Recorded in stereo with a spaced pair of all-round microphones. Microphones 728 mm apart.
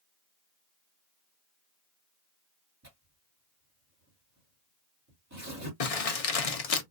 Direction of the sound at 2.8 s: 20° right (ahead or behind).